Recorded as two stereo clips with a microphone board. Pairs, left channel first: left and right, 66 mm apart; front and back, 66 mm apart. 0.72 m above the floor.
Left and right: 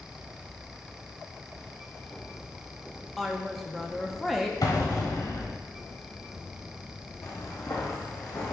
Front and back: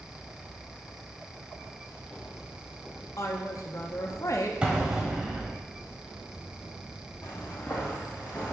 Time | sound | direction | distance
3.2 | a woman speaking | 5° left | 0.6 m
4.6 | an explosion | 105° left | 1.3 m
7.2 | footsteps | 55° left | 3 m